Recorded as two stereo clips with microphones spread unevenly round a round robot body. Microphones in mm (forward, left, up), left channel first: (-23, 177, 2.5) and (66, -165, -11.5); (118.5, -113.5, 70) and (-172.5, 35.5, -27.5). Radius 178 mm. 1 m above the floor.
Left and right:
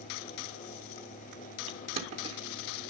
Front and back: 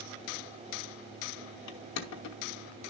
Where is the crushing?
5° right, 1.0 m.